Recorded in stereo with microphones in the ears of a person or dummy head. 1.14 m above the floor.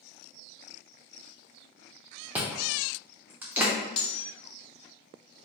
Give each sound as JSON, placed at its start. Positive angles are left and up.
{"t": 2.4, "sound": "chewing", "side_deg": -5, "distance_m": 0.5}
{"t": 4.0, "sound": "cutlery clinking", "side_deg": 30, "distance_m": 0.6}